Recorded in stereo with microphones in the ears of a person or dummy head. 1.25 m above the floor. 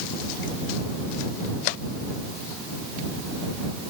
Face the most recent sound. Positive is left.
No sound to turn to.